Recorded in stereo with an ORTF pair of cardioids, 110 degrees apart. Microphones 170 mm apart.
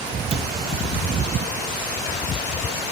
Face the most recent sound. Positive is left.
turn(degrees=-35)